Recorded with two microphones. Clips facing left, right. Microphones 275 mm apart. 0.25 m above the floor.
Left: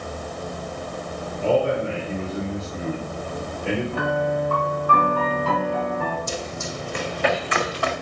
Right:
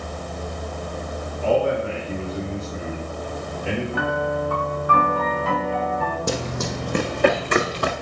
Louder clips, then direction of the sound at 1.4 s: Even; 25° left (ahead or behind).